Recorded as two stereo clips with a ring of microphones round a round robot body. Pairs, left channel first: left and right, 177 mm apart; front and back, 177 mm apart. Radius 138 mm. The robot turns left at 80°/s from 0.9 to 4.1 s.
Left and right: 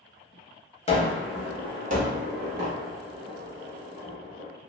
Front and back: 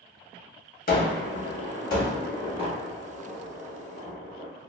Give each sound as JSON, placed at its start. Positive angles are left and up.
{"t": 0.9, "sound": "a gunshot", "azimuth_deg": 35, "distance_m": 1.1}